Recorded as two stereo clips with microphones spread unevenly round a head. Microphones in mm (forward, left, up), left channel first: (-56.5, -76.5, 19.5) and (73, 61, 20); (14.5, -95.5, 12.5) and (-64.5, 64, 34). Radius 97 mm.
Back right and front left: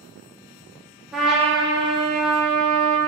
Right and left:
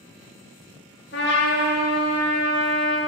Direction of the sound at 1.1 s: 40° right.